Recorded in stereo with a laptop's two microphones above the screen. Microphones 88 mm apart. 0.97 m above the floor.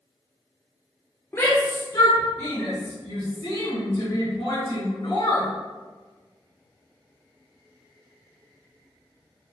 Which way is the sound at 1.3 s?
25° left (ahead or behind).